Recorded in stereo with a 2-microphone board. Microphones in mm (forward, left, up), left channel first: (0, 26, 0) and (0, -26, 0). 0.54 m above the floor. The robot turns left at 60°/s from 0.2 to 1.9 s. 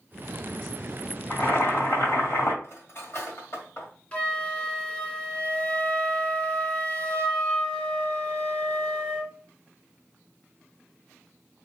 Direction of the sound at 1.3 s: 140° left.